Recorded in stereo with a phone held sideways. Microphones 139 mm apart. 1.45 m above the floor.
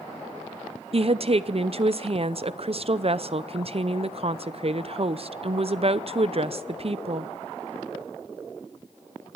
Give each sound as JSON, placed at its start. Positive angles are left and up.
{"t": 0.9, "sound": "a woman speaking", "side_deg": -45, "distance_m": 0.7}